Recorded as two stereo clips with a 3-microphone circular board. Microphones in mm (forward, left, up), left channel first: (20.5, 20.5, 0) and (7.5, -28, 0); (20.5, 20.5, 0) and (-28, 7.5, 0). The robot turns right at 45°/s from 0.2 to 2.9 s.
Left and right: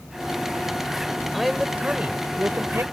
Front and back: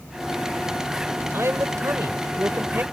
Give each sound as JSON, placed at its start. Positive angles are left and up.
{"t": 1.3, "sound": "a man speaking", "azimuth_deg": 165}